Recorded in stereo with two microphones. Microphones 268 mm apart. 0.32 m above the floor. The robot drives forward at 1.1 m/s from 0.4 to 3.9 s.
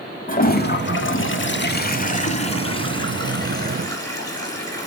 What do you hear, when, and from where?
0.3 s a toilet flushing: 30° left (ahead or behind), 1.3 m; by 4.9 s 10° left (ahead or behind), 3 m